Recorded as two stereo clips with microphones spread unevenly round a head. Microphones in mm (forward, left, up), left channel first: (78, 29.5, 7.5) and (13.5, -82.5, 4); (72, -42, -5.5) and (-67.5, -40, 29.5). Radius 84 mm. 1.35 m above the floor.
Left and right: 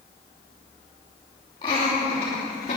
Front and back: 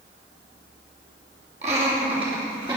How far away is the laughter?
About 3 m.